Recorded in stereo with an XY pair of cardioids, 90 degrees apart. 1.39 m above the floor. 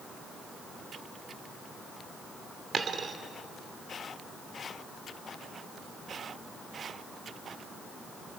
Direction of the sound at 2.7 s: 55° right.